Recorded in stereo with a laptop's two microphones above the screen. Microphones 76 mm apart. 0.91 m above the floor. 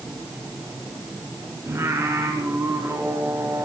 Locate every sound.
1.7 s singing: 40° right (ahead or behind), 3 m